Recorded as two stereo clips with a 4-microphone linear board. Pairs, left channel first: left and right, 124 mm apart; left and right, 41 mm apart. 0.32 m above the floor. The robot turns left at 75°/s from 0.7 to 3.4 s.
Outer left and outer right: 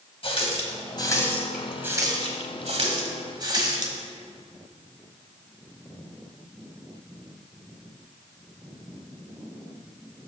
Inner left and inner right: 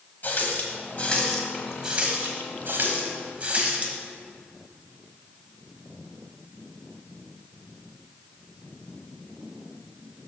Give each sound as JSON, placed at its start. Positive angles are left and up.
{"t": 0.2, "sound": "a running tap", "side_deg": 50, "distance_m": 1.2}